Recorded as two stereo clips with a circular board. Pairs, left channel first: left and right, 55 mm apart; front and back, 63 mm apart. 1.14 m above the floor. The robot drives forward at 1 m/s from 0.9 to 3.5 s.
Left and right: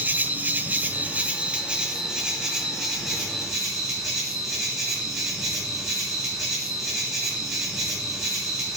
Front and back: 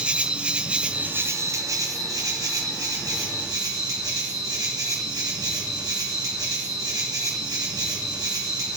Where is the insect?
120° right, 0.7 m; by 8.8 s 170° right, 3 m.